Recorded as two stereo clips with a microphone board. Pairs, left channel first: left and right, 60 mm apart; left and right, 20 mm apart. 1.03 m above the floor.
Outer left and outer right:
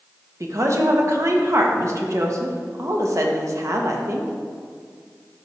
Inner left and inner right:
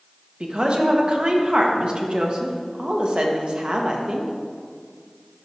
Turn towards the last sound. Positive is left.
turn(degrees=-55)  # may be behind; listen again after turning